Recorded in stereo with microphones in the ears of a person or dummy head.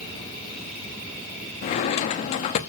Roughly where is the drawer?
Left.